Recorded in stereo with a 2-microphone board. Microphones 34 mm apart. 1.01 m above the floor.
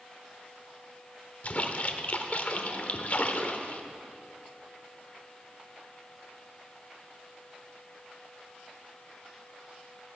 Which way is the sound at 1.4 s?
50° left (ahead or behind).